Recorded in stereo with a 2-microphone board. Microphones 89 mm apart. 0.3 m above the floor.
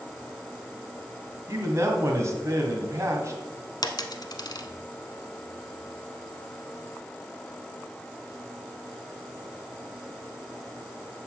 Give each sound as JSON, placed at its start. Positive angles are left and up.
{"t": 1.5, "sound": "a man speaking", "side_deg": -35, "distance_m": 1.9}
{"t": 3.8, "sound": "a dropped coin", "side_deg": 55, "distance_m": 0.8}